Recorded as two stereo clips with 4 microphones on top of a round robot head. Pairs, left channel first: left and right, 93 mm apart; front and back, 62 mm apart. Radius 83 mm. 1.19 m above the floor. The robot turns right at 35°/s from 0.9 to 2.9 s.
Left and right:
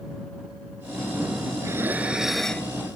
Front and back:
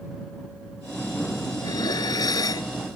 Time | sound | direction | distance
1.6 | dishes clattering | 25° right | ?